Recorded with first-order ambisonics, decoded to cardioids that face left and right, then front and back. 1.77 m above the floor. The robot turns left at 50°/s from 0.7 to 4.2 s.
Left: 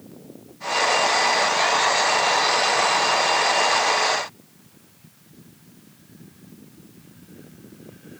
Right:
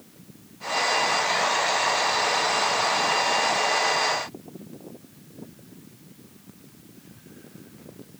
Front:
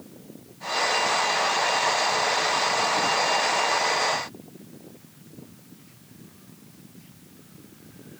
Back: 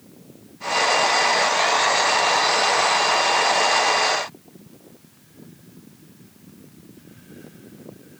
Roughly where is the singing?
No singing in this recording.